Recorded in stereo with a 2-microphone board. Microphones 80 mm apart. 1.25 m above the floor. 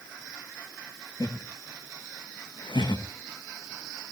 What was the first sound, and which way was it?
Laughter, 40° left (ahead or behind).